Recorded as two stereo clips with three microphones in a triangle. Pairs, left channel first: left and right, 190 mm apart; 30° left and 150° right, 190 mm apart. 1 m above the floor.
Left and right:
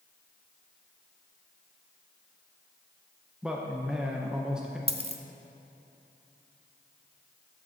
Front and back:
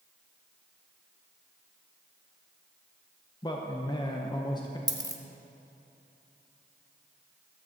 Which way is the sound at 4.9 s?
95° right.